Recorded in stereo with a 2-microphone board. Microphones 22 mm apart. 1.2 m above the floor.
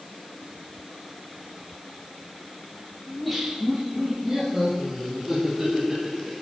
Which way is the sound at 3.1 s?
5° left (ahead or behind).